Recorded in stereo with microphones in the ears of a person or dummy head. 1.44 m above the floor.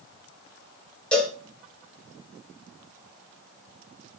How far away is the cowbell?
About 1.1 m.